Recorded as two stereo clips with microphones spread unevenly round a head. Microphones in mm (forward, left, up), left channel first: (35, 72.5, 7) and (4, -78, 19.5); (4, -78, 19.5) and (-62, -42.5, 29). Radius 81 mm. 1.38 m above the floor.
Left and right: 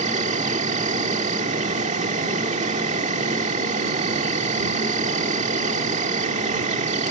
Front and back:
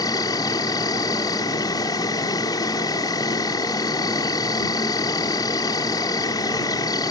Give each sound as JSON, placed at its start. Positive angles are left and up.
{"t": 0.0, "sound": "an insect", "azimuth_deg": -60}